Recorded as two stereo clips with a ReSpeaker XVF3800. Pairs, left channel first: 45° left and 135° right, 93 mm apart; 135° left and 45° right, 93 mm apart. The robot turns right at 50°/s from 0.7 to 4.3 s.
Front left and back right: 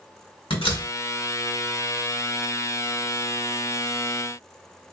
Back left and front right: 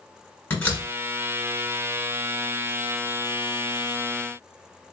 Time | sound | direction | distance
0.5 | a door slam | 65° left | 1.9 m